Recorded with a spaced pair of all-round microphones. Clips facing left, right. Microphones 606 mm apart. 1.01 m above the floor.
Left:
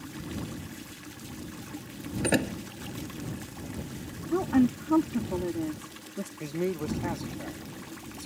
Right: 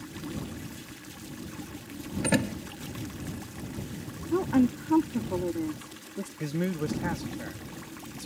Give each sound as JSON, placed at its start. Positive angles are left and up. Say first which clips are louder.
{"t": 2.2, "sound": "a door slam", "louder": "even", "side_deg": -30}
{"t": 4.3, "sound": "a woman speaking", "louder": "even", "side_deg": 5}
{"t": 6.4, "sound": "a man speaking", "louder": "even", "side_deg": -45}